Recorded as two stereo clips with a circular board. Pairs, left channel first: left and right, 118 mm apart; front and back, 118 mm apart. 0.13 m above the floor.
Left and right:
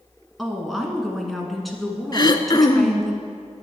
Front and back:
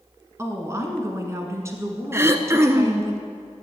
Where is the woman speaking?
Straight behind, 1.3 m.